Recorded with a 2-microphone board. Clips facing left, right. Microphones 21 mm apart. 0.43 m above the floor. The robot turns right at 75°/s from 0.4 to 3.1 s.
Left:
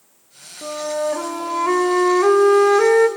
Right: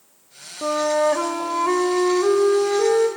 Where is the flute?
65° right, 0.9 m; by 3.1 s 120° left, 0.9 m.